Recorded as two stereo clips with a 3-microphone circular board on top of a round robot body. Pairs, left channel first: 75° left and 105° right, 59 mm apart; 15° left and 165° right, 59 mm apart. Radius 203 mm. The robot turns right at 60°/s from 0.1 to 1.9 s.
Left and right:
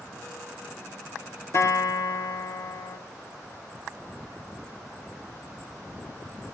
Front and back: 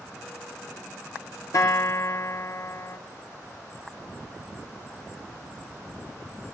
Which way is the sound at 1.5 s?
40° left.